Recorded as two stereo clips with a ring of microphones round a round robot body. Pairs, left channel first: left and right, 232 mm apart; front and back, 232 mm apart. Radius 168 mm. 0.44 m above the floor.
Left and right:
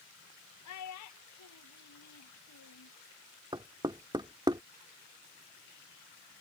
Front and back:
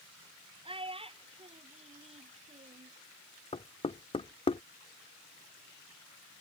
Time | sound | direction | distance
0.7 | a child speaking | 110° left | ?
3.5 | knocking | 40° right | ?